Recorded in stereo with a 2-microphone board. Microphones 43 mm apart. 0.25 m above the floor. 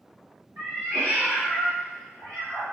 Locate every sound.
0.6 s a cat meowing: 85° right, 1.7 m; by 2.6 s 70° right (ahead or behind), 3 m